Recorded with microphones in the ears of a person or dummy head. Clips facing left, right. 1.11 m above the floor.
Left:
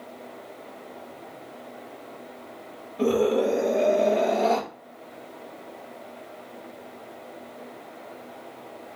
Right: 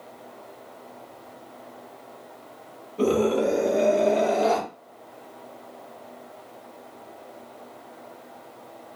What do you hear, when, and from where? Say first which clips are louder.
3.0 s a scream: even; 55° right (ahead or behind), 2.5 m; by 4.6 s 50° right (ahead or behind), 3.5 m